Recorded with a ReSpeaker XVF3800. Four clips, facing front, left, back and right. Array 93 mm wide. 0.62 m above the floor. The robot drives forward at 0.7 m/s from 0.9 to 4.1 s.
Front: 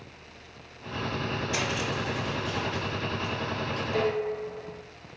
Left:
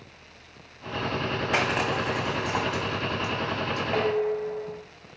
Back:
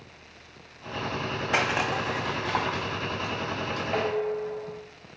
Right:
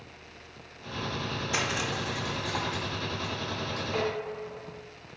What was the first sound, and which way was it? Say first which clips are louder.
Crushing: left 6 dB, back 8 dB; 135° left.